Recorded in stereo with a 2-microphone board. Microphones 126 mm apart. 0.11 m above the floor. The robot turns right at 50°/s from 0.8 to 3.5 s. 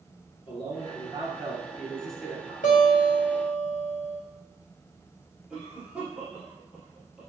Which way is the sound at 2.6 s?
90° left.